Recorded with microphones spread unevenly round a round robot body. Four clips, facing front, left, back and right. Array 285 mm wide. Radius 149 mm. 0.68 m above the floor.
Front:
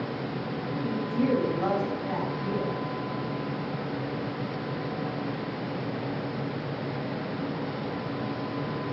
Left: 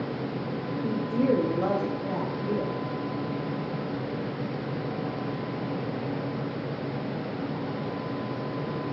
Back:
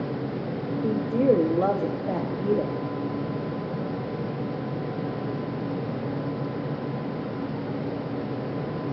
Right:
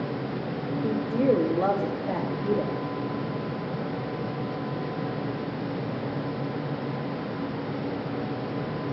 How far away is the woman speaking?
About 2.5 m.